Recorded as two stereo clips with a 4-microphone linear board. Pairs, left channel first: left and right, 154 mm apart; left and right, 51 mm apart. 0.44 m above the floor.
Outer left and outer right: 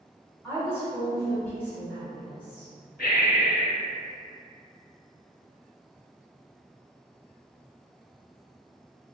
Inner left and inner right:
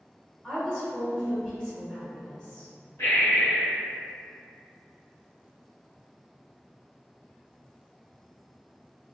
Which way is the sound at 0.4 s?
15° left (ahead or behind).